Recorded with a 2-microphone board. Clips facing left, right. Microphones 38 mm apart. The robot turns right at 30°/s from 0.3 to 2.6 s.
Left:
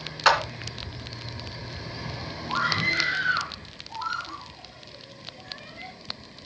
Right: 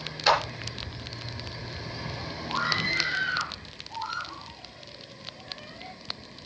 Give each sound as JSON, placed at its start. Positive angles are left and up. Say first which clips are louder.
{"t": 0.2, "sound": "a clap", "louder": "left 3 dB", "side_deg": 65, "distance_m": 3.0}
{"t": 2.5, "sound": "a scream", "louder": "left 3 dB", "side_deg": 65, "distance_m": 4.0}